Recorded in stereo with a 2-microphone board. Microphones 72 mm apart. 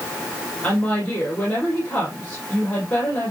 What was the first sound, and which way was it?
A woman speaking, 25° left (ahead or behind).